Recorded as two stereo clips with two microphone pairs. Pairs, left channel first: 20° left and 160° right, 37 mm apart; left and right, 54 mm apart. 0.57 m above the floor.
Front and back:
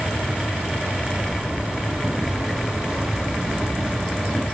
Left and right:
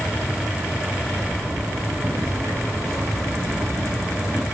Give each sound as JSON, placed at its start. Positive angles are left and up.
{"t": 1.2, "sound": "a zipper", "azimuth_deg": -75, "distance_m": 8.5}